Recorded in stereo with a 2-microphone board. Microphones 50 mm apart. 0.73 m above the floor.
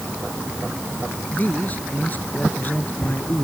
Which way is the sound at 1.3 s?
35° left (ahead or behind).